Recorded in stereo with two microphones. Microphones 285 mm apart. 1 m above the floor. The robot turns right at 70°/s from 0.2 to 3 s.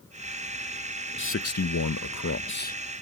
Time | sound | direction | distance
1.2 | a man speaking | 40° left | ?